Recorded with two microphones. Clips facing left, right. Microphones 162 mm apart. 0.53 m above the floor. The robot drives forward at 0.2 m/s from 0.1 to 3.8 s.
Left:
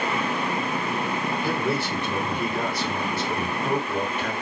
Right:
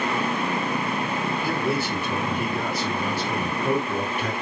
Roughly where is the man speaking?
Centre.